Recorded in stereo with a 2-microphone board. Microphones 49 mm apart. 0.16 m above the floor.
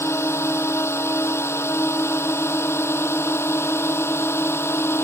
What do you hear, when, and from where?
0.0 s a drone: 65° left (ahead or behind); by 5.1 s 60° left (ahead or behind)